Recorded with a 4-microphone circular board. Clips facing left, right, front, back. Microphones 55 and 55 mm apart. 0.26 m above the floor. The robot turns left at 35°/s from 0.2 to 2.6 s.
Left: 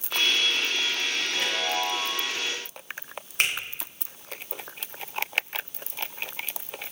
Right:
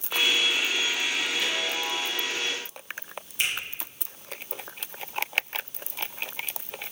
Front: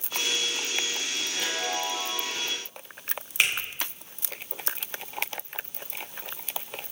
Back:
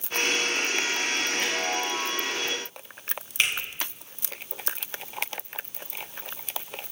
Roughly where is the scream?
I don't hear a scream.